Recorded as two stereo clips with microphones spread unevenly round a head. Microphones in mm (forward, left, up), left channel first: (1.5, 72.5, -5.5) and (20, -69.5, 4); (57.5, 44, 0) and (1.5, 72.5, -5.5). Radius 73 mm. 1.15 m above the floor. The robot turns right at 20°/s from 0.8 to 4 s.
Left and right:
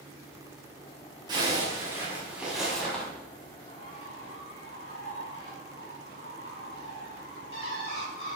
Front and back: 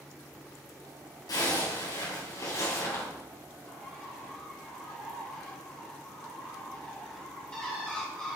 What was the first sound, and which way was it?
A zipper, 20° right.